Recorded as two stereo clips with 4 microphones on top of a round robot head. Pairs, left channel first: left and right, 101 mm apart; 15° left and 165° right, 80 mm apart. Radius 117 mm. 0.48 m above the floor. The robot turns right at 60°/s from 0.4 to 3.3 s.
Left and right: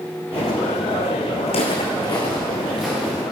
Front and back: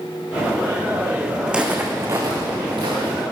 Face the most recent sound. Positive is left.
turn(degrees=-155)